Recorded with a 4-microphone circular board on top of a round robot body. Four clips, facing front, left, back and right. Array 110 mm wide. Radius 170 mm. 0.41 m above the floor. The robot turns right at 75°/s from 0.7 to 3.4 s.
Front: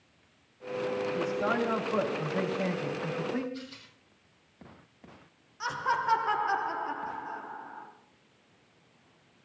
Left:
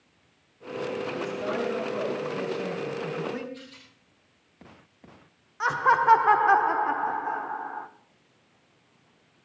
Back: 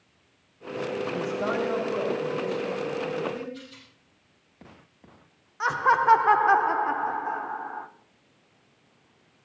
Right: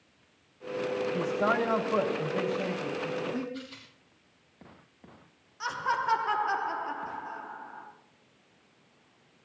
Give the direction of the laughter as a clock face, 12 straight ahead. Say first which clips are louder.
Left 9 dB, back 8 dB; 8 o'clock.